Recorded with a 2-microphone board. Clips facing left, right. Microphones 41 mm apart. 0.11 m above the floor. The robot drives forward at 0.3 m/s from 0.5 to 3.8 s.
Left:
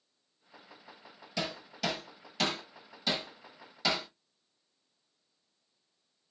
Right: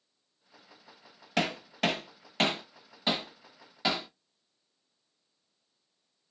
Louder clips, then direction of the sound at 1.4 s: Right 6 dB; 55° right (ahead or behind).